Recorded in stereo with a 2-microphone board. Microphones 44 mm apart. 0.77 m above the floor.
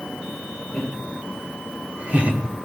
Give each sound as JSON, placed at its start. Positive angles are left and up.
{"t": 0.7, "sound": "laughter", "side_deg": -10, "distance_m": 4.0}